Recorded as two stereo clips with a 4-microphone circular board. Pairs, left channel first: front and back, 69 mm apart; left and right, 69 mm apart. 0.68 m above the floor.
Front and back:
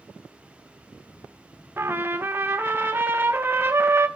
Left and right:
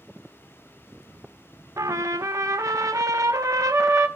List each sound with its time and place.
1.8 s a trumpet: 120° right, 0.6 m